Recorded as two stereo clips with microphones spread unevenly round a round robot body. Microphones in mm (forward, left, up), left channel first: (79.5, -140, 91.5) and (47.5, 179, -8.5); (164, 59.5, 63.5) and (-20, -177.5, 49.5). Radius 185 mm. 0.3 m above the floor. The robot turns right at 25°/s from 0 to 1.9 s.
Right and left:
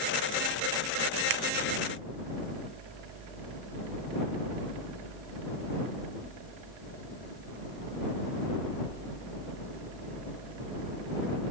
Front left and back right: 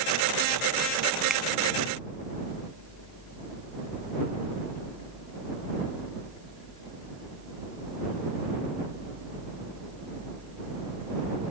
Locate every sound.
1.3 s a finger snap: 145° left